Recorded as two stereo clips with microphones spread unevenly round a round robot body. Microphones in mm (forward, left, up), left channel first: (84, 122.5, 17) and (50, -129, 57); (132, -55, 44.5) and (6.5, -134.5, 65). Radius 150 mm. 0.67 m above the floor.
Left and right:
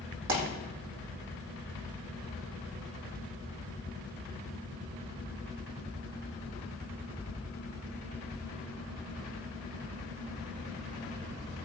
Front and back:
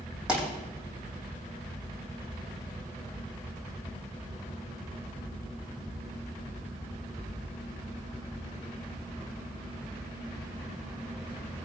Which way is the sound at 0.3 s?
65° right.